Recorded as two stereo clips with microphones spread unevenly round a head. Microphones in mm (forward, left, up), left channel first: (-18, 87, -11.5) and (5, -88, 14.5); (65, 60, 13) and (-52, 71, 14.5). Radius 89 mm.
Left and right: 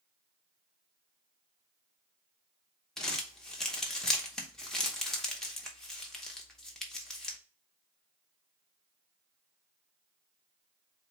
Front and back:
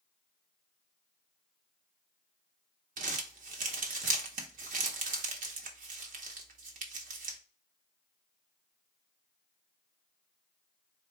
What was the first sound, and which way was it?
Crumpling, 175° right.